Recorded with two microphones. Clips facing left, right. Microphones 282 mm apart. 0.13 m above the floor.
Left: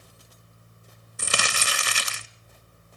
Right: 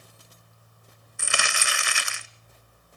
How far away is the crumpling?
About 0.7 m.